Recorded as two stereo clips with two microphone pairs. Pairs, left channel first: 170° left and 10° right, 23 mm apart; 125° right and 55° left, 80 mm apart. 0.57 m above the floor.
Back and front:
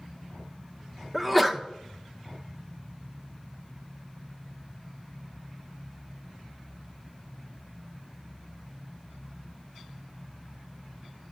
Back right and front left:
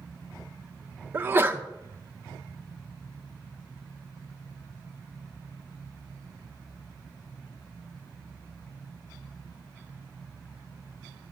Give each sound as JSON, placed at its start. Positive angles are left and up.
{"t": 1.1, "sound": "a sneeze", "azimuth_deg": 75, "distance_m": 0.9}